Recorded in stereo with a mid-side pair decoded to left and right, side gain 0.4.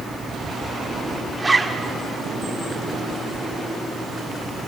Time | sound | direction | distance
1.4 | a zipper | 15° right | 2 m